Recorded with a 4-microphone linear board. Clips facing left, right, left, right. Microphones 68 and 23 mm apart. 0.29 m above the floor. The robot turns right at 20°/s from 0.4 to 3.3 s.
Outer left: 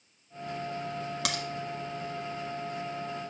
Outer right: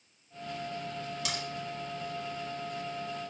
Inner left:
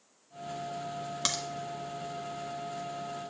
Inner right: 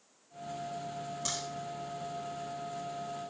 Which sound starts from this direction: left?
A crack, at 1.2 s.